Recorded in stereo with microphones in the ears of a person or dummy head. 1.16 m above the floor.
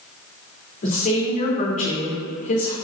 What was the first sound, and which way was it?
A woman speaking, 35° left (ahead or behind).